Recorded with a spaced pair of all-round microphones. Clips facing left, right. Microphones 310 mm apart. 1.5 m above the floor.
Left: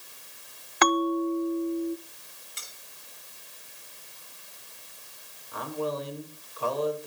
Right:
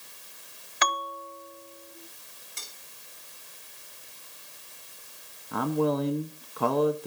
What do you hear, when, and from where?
0.8 s a bell: 60° left (ahead or behind), 0.6 m
2.6 s cutlery clinking: 50° right (ahead or behind), 3.5 m
5.5 s a man speaking: 60° right (ahead or behind), 1.0 m